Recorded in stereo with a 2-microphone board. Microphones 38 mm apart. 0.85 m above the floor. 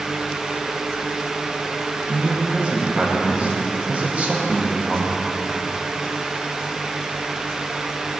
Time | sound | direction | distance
2.1 | a man speaking | 35° right (ahead or behind) | 1.0 m